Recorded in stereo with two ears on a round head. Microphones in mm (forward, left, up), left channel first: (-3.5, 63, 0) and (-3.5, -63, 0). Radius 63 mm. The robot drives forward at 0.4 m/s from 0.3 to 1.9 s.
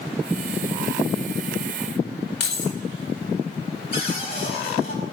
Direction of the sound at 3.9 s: 45° left (ahead or behind).